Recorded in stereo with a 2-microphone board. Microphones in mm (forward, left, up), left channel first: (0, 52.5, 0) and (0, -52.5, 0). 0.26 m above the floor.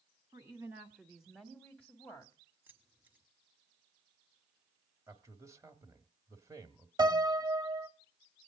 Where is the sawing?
No sawing in this recording.